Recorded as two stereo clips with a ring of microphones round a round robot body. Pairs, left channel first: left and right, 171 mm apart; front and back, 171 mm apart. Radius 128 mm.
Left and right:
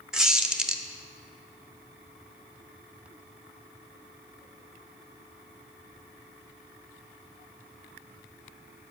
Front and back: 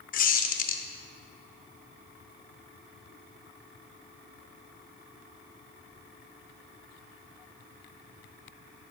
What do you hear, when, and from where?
0.1 s a squeak: 5° right, 0.8 m